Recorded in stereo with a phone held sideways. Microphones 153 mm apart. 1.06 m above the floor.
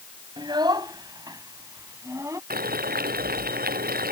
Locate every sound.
0.4 s a child speaking: 30° right (ahead or behind); by 2.4 s 20° right (ahead or behind)
2.5 s boiling: 80° right